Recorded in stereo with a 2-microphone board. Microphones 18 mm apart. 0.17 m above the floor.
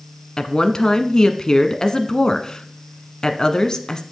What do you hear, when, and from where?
0.4 s a woman speaking: 40° left (ahead or behind), 1.3 m